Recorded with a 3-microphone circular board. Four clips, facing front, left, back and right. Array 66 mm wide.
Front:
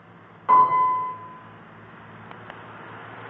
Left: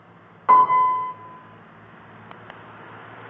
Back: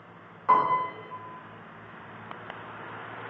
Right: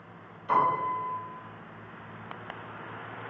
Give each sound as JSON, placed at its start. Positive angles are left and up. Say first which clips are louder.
{"t": 0.5, "sound": "a piano", "louder": "left 11 dB, front 6 dB", "azimuth_deg": 90, "distance_m": 1.6}